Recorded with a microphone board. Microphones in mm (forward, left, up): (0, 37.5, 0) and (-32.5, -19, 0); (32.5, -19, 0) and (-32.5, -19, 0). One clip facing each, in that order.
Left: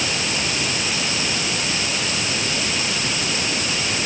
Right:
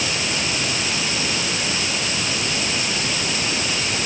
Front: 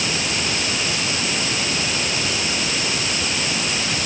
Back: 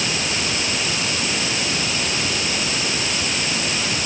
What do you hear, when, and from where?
Only background noise.